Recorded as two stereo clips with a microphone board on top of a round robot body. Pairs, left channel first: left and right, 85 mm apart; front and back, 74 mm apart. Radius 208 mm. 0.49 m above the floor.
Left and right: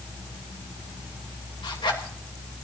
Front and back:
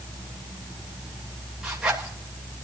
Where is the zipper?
100° left, 2.5 m.